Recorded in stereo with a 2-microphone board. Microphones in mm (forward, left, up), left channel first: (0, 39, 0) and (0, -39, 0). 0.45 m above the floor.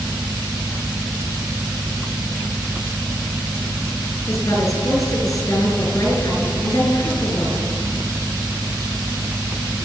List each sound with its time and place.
4.3 s a woman speaking: 35° left (ahead or behind), 6 m